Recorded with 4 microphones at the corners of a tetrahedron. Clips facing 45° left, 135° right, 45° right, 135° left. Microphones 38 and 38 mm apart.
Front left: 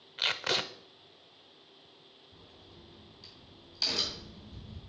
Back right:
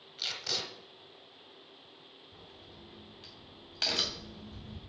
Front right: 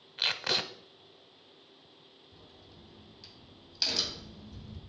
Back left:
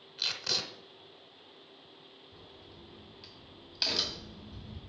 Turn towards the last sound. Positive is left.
turn(degrees=-155)